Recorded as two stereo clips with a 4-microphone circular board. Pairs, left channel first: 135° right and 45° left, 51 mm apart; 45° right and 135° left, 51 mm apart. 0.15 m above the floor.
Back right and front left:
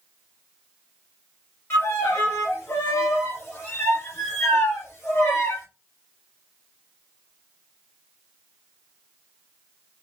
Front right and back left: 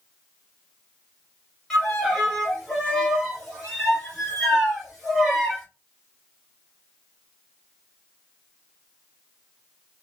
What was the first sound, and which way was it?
A violin, 120° right.